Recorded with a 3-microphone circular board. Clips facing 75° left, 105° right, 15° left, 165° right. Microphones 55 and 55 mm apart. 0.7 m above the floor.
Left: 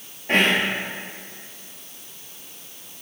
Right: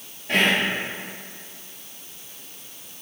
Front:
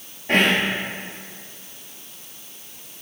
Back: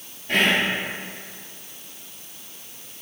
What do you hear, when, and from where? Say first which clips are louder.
0.3 s whispering: left 1 dB, front 2 dB; 35° left, 0.7 m